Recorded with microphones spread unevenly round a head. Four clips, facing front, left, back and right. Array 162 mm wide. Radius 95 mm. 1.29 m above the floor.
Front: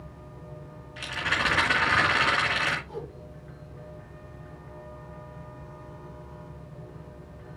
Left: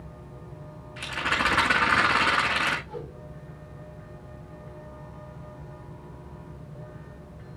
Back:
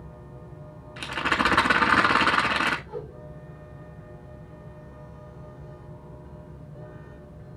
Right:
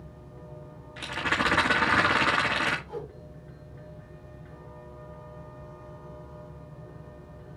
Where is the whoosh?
65° right, 2.5 m.